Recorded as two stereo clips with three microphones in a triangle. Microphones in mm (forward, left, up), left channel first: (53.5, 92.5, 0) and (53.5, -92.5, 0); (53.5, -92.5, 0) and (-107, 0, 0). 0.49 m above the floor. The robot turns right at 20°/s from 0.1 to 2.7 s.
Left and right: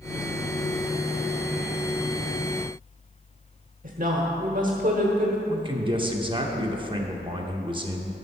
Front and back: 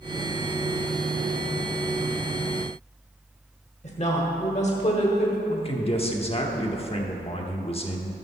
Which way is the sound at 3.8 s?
70° right.